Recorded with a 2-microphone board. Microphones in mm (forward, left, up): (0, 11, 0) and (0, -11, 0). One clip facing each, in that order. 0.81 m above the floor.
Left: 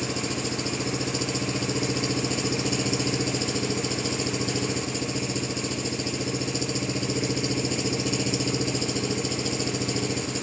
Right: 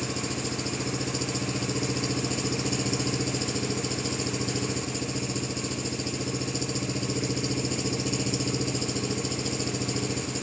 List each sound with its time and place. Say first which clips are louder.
0.0 s an engine running: left 2 dB; 15° left (ahead or behind)